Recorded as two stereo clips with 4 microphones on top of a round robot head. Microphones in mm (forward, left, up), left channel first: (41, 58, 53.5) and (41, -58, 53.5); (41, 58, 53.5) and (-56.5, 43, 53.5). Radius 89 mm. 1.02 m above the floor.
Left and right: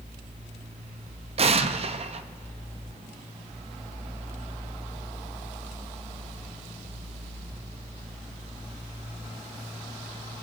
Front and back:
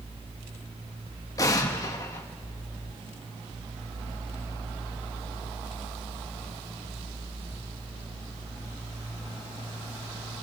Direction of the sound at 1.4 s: 55° right.